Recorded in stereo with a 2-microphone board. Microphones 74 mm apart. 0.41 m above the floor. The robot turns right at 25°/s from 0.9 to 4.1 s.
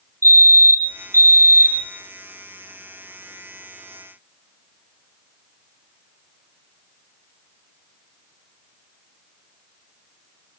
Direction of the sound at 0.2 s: 45° right (ahead or behind).